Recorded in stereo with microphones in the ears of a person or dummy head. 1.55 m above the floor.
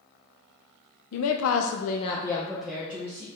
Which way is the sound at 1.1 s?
80° left.